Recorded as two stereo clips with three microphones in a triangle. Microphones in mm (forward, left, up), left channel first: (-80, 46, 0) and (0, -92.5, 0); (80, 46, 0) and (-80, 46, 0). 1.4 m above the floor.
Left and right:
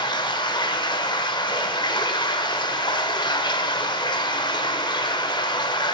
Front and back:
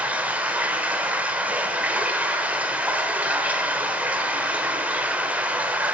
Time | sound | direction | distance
0.0 | running water | 110° left | 1.2 m